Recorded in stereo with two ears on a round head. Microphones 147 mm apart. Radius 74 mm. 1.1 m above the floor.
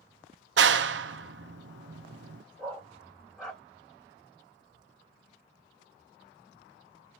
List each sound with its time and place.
0.6 s a clap: 75° right (ahead or behind), 0.5 m
2.6 s a dog barking: centre (ahead or behind), 2 m